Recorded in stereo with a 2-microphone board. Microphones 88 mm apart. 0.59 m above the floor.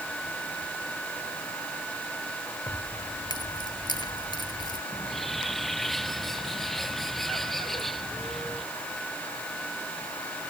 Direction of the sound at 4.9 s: Centre (ahead or behind).